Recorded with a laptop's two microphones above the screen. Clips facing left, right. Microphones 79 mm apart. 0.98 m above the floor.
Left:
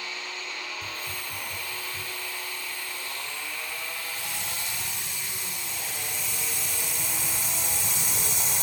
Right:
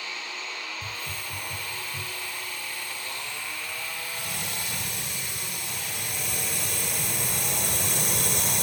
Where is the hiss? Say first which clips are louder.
Even; 65° right (ahead or behind).